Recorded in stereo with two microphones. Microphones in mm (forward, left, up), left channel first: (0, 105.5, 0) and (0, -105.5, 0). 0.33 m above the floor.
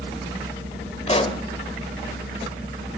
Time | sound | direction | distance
1.1 | a pop | 30° left (ahead or behind) | 1.3 m